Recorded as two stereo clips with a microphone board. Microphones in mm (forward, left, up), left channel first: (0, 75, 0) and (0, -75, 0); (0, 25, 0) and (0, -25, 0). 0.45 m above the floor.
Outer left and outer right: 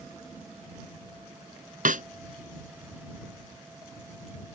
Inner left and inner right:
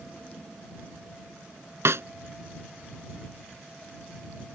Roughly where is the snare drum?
Right.